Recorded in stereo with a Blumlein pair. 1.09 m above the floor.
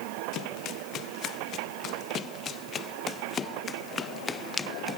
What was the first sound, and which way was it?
Running footsteps, 35° left.